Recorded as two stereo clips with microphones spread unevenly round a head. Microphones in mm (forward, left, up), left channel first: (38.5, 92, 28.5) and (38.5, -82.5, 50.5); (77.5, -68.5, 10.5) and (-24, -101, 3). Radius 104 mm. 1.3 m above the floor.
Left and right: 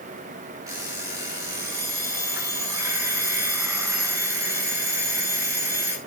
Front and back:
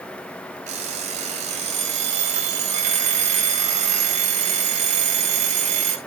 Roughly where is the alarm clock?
Behind.